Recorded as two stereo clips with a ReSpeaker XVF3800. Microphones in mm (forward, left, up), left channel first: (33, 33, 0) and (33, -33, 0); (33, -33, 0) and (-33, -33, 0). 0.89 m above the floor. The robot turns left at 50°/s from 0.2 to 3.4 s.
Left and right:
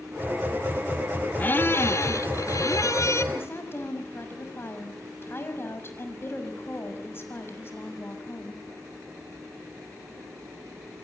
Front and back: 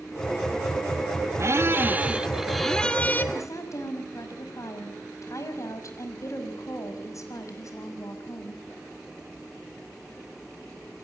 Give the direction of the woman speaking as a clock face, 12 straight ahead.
11 o'clock.